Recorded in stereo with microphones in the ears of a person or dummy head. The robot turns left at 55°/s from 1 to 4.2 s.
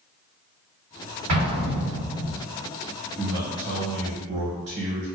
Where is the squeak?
No squeak in this recording.